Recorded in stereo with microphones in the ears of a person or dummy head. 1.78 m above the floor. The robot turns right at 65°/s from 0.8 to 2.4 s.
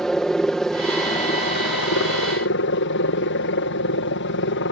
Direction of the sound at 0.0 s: Straight ahead.